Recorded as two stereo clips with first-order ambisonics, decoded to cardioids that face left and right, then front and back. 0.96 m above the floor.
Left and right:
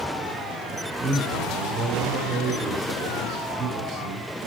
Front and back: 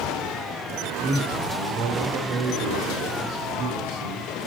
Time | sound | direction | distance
1.0 | a man speaking | 140° right | 2.5 m